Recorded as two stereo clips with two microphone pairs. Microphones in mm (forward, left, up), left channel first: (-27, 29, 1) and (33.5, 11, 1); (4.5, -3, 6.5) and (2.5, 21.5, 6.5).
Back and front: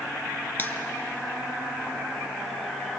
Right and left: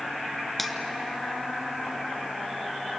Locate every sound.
0.6 s a finger snap: 175° right, 1.3 m